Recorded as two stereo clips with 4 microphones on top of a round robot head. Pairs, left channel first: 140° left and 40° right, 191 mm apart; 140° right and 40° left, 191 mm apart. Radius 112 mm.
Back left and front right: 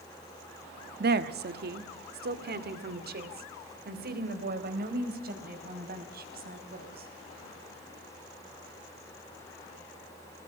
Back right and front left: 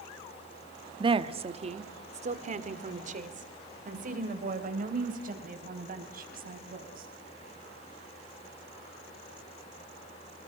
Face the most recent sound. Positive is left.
turn(degrees=0)